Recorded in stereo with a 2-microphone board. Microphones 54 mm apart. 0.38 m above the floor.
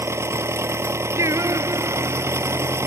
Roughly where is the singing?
Right.